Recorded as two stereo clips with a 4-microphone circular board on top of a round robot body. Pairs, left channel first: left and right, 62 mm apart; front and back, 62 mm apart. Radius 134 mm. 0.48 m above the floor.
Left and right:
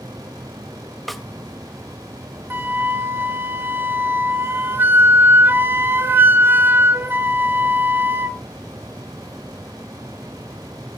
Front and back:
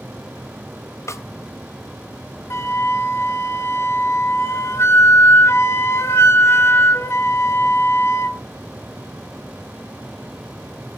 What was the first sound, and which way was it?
A snare drum, 5° left.